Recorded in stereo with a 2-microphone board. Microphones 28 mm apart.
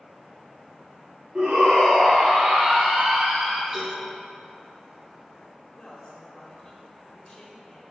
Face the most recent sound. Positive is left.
turn(degrees=20)  # may be behind; listen again after turning